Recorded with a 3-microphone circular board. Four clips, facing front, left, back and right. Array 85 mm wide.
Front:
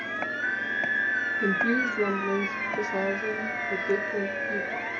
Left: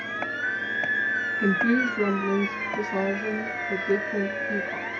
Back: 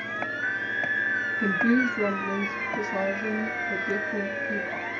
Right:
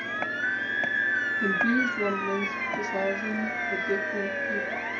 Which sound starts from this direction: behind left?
A woman speaking, at 1.4 s.